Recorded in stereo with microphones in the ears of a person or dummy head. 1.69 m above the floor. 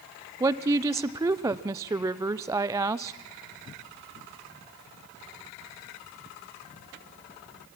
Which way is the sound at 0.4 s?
15° right (ahead or behind).